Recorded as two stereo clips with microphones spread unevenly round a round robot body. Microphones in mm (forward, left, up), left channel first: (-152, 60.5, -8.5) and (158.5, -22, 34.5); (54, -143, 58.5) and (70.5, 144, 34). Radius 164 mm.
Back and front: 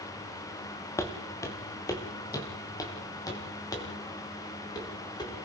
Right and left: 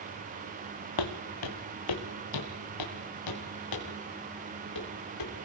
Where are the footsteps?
110° right, 1.9 m; by 5.3 s 115° right, 5.5 m.